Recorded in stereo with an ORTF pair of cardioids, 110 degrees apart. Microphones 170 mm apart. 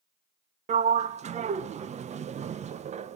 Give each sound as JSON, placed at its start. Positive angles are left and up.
{"t": 0.7, "sound": "a sliding door", "azimuth_deg": -40, "distance_m": 0.9}